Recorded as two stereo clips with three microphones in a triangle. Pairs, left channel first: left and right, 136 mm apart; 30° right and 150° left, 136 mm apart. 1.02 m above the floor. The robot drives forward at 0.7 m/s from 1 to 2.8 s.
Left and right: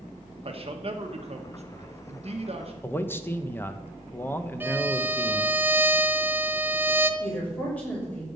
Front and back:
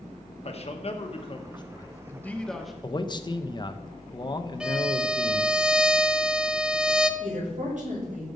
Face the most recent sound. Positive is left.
turn(degrees=170)